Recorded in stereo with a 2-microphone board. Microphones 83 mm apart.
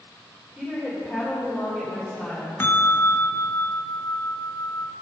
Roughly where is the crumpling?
I don't hear crumpling.